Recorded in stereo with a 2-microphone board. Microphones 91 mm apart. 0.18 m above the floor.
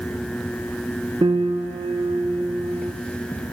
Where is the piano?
60° right (ahead or behind), 0.8 m.